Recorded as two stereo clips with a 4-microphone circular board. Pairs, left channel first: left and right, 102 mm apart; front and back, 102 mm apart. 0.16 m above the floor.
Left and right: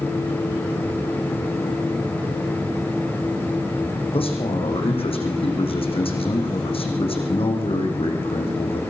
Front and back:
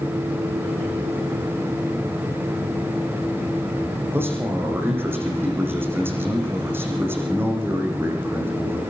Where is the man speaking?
110° left, 7.5 m.